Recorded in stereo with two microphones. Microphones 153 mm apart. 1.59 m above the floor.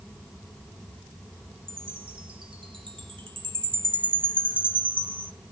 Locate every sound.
1.7 s a chime: 30° right (ahead or behind), 1.6 m